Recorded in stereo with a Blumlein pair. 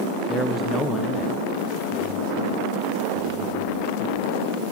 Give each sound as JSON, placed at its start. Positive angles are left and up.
{"t": 0.3, "sound": "a man speaking", "azimuth_deg": -5, "distance_m": 1.4}